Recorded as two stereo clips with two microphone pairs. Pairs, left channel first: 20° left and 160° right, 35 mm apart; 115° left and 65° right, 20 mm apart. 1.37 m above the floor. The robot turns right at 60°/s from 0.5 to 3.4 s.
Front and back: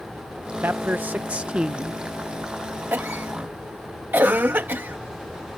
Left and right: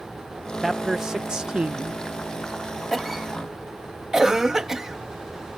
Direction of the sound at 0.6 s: 155° right.